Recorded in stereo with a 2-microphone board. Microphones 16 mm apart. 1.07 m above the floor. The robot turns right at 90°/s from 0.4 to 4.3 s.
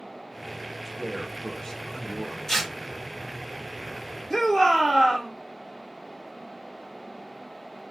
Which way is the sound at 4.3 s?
25° left (ahead or behind).